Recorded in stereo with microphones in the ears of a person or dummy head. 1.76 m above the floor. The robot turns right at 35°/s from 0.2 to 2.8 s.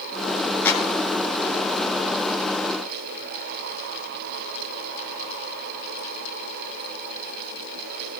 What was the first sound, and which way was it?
A clap, 10° left (ahead or behind).